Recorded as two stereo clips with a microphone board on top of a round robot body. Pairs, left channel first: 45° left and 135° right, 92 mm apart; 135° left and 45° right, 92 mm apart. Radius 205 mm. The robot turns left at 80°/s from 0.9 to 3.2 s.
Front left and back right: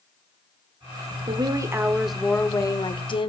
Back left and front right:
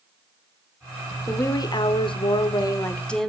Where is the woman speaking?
160° right, 2.5 m; by 3.3 s 50° left, 2.5 m.